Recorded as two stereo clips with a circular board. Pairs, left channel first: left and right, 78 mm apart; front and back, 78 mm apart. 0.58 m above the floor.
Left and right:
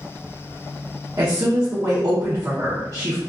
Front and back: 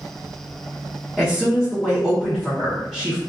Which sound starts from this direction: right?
A woman speaking, at 1.2 s.